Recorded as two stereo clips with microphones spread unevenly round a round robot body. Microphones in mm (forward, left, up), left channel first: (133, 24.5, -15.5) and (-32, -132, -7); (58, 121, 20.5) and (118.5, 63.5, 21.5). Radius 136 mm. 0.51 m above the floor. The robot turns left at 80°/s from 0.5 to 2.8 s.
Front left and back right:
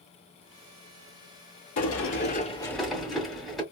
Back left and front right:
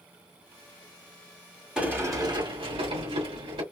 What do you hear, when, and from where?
1.8 s a sliding door: 35° left, 2 m; by 3.6 s 45° right, 2 m